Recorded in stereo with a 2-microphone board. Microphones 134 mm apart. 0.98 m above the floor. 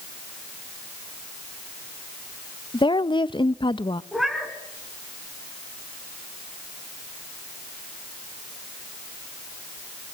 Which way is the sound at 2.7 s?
35° left (ahead or behind).